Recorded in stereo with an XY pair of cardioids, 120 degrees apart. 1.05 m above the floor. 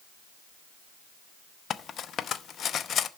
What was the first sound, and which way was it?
Cutlery clinking, 50° left.